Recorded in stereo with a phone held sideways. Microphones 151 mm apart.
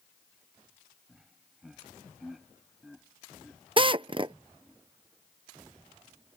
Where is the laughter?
5° right (ahead or behind); by 4.8 s centre (ahead or behind).